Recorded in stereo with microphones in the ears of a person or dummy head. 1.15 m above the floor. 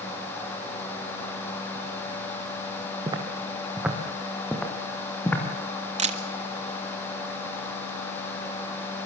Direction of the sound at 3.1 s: 30° right (ahead or behind).